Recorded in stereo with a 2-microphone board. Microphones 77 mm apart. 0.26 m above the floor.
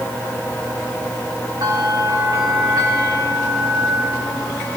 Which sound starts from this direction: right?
A bell, at 1.6 s.